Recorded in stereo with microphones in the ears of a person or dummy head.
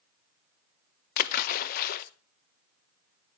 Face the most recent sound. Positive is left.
turn(degrees=50)  # may be behind; listen again after turning